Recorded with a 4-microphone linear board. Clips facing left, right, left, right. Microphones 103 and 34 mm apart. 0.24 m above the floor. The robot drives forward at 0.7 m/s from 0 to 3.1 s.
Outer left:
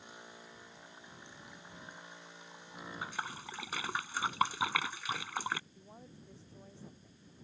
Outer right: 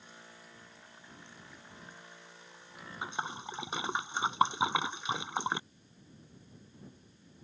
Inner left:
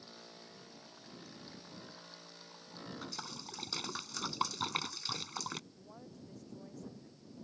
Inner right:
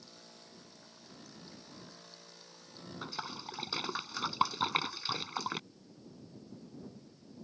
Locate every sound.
3.0 s a splash: 20° right (ahead or behind); by 5.6 s 25° right (ahead or behind)
5.7 s a woman speaking: 85° left